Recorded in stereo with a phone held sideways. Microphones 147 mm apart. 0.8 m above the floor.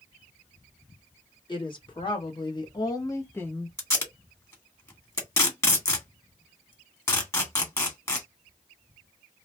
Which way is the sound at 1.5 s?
35° left (ahead or behind).